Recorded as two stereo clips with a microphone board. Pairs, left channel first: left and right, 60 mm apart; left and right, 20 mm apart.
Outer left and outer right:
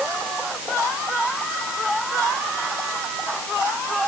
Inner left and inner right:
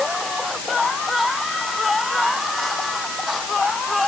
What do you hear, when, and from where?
Only background noise.